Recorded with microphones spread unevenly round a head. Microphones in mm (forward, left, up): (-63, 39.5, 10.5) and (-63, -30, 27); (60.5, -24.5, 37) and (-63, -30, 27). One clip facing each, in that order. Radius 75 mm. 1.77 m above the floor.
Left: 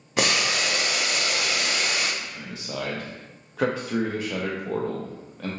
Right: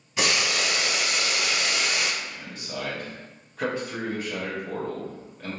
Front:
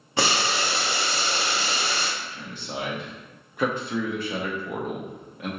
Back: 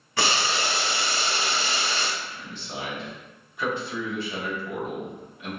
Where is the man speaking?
55° left, 0.8 m.